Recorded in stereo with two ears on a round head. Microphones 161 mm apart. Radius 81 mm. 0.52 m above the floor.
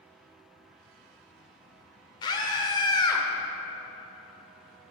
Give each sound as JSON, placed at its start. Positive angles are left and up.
{"t": 2.2, "sound": "a scream", "side_deg": 25, "distance_m": 2.0}